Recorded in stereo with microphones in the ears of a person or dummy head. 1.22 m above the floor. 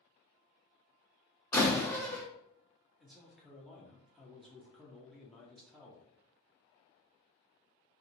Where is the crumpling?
I don't hear crumpling.